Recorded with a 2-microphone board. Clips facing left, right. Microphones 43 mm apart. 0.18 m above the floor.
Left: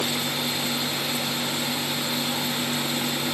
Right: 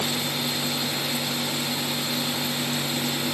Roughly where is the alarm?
I don't hear an alarm.